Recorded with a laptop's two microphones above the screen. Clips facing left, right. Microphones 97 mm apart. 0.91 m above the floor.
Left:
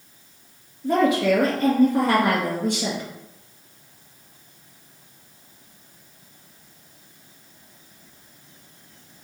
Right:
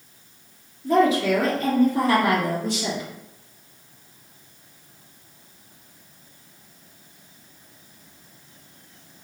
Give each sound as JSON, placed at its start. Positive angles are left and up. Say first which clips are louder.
{"t": 0.8, "sound": "a woman speaking", "louder": "even", "side_deg": 55, "distance_m": 1.6}